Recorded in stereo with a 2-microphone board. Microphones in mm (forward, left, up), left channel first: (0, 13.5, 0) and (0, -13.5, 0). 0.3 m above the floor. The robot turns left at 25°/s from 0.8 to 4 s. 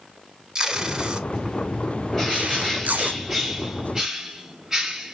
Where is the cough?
I don't hear a cough.